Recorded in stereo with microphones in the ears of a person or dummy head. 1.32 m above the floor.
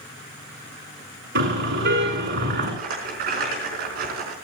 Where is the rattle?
55° right (ahead or behind), 4.5 m.